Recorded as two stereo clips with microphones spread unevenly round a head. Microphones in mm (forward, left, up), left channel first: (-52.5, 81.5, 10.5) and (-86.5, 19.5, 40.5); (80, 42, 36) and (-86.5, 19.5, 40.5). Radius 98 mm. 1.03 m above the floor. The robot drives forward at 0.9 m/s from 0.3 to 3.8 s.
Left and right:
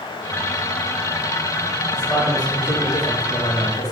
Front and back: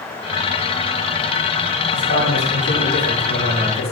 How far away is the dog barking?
No dog barking in this recording.